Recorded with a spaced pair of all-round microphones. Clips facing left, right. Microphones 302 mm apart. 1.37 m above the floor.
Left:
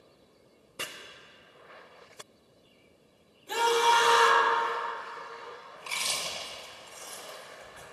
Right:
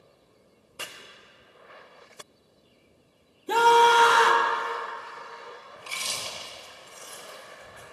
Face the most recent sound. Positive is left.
turn(degrees=-15)  # may be behind; listen again after turning